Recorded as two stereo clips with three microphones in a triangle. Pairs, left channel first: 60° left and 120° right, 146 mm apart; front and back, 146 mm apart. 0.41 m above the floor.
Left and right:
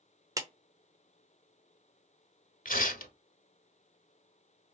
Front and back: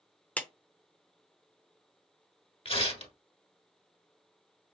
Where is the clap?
75° right, 0.7 m.